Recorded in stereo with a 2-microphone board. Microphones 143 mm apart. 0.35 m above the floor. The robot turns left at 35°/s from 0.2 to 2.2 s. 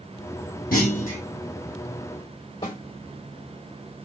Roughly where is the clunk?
Left.